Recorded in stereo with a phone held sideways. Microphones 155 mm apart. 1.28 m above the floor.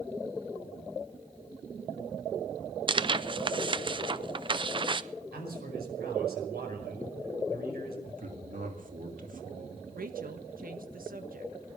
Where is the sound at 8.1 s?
60° right (ahead or behind), 2.5 m.